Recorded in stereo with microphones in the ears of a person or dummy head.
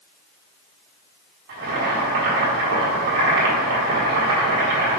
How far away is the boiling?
About 2.0 m.